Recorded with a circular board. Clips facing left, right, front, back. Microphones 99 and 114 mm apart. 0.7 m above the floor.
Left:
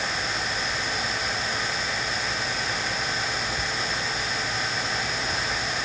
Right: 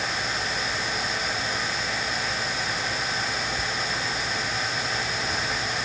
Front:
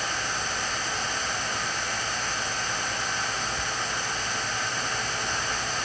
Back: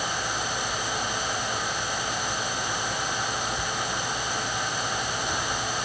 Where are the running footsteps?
No running footsteps in this recording.